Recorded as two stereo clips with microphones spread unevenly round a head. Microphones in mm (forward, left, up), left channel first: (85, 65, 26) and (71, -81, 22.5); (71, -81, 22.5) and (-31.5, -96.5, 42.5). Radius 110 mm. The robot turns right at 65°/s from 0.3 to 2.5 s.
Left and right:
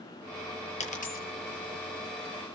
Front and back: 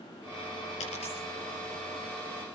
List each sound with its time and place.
0.8 s a dropped coin: 45° left, 6.5 m; by 1.3 s 75° left, 6.5 m